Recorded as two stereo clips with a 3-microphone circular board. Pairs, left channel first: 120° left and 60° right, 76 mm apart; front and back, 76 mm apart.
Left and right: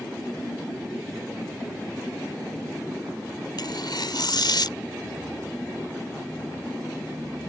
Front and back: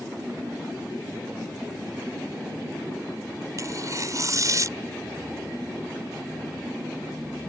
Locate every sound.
3.6 s tearing paper: 140° left